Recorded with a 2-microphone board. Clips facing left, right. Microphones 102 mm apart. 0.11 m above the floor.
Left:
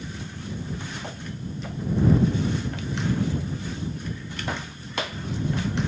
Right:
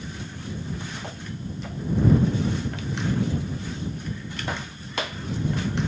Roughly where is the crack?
I don't hear a crack.